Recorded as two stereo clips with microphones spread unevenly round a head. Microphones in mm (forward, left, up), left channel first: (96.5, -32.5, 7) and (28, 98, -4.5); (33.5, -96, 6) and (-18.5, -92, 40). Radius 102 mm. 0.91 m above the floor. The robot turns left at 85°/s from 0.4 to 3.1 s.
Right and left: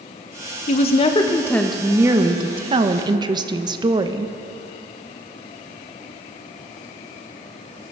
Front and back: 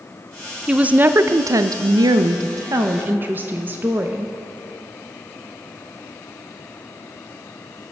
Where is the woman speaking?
65° right, 0.5 m; by 4.3 s 85° left, 0.5 m.